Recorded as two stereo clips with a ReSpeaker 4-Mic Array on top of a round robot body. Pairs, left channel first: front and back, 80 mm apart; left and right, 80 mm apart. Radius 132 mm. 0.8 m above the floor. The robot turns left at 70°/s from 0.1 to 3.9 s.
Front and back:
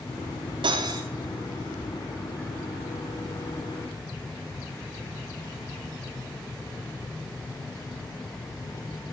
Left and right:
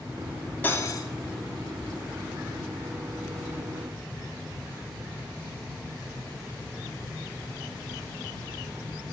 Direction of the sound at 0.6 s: 160° left.